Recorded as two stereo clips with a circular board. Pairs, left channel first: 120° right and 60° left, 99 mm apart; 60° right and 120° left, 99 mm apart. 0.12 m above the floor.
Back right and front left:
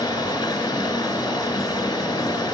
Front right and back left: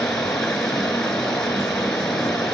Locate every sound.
0.0 s running water: 140° right, 1.2 m